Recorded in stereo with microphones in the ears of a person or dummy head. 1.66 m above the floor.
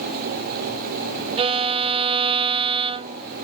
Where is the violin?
30° right (ahead or behind), 0.6 m.